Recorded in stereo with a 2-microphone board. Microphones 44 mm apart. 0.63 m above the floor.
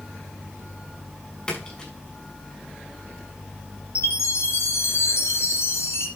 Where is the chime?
80° left, 4.5 m.